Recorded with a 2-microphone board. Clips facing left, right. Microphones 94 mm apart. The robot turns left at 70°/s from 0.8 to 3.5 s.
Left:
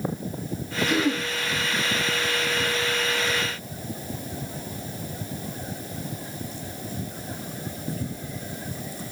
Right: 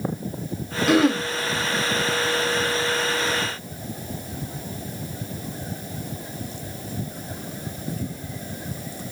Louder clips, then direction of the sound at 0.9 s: Right 7 dB; 70° right (ahead or behind).